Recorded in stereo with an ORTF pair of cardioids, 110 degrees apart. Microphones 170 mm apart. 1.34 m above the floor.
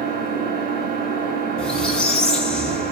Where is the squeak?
5° left, 3.5 m.